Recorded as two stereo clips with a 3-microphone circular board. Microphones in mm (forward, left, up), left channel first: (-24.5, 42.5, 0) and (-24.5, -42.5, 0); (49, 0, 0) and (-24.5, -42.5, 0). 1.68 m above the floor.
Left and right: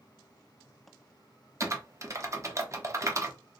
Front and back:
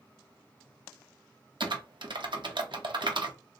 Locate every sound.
1.6 s typing on a keyboard: 140° right, 0.6 m